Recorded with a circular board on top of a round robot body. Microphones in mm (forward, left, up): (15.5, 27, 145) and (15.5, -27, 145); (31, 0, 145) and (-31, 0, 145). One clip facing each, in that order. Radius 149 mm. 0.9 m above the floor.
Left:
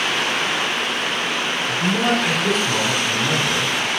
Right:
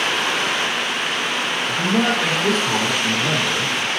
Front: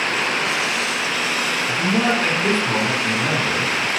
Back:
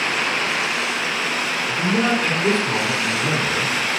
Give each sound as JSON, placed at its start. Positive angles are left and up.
{"t": 1.7, "sound": "a man speaking", "azimuth_deg": -50, "distance_m": 1.6}